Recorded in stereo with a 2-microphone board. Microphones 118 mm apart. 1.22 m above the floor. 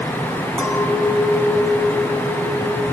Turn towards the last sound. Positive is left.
turn(degrees=-10)  # may be behind; listen again after turning